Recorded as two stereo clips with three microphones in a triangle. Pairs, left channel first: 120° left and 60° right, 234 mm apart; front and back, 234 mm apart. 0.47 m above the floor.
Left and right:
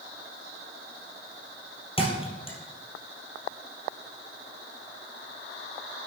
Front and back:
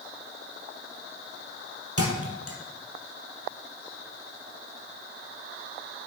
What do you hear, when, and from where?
2.0 s a thud: 175° right, 3 m